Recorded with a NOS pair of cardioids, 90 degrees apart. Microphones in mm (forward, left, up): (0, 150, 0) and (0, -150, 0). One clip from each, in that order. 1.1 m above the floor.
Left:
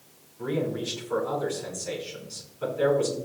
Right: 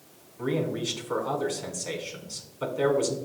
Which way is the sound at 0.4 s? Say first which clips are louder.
Even; 45° right.